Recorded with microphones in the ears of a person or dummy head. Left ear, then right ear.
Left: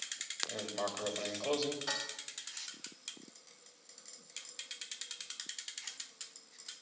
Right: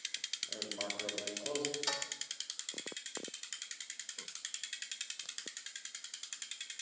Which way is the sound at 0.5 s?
45° left (ahead or behind).